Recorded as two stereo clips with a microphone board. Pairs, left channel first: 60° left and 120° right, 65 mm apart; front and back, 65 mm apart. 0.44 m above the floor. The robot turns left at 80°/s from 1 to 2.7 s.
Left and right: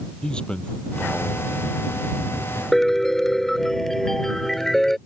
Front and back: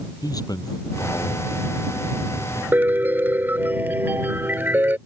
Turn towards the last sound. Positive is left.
turn(degrees=140)